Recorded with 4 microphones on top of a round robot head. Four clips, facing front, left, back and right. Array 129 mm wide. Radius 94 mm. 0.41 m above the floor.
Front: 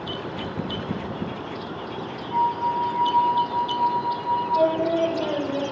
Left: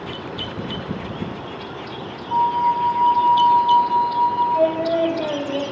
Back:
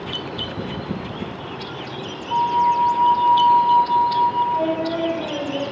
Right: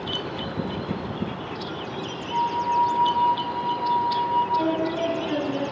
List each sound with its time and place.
2.3 s a flute: 140° left, 1.3 m
4.5 s singing: 75° left, 2.5 m